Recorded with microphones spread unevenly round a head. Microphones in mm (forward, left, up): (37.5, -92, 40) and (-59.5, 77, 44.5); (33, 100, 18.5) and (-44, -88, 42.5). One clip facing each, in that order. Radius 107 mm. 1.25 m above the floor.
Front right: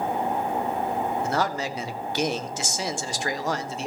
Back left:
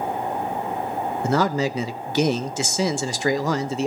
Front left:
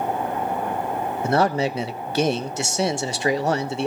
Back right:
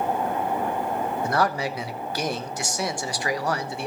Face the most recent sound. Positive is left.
turn(degrees=135)